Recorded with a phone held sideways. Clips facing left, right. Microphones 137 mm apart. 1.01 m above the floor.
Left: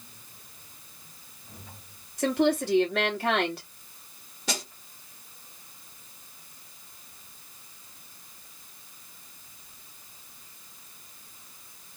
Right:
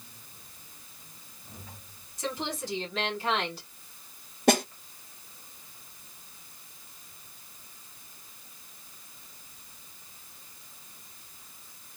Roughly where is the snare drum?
Right.